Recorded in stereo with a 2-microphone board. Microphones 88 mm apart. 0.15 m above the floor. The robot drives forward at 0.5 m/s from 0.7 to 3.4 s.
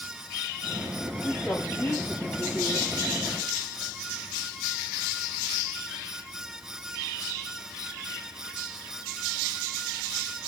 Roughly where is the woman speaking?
Left.